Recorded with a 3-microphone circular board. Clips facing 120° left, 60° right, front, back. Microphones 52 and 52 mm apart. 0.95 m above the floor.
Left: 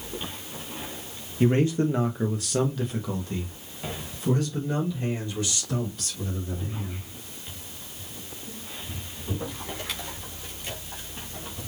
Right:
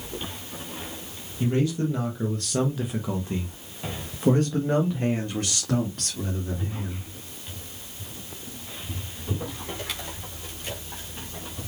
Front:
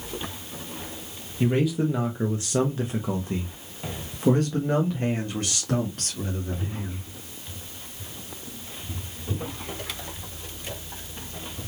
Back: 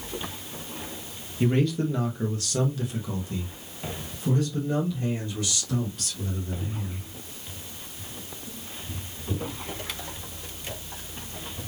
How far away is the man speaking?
About 1.0 m.